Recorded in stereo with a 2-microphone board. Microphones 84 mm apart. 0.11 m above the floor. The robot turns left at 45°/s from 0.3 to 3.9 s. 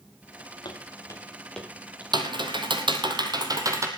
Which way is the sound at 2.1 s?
65° right.